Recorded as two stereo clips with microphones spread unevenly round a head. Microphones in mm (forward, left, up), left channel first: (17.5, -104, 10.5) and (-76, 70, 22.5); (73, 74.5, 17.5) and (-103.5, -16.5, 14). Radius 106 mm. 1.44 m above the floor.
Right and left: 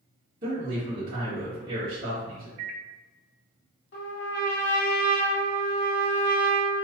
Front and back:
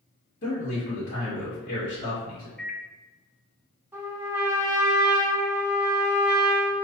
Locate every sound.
0.4 s a man speaking: 65° left, 2 m
2.6 s a microwave: 115° left, 0.5 m
3.9 s a trumpet: 75° right, 1.2 m